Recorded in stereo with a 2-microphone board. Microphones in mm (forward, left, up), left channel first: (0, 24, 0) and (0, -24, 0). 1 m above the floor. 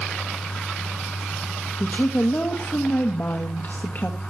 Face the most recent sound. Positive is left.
turn(degrees=40)  # may be behind; listen again after turning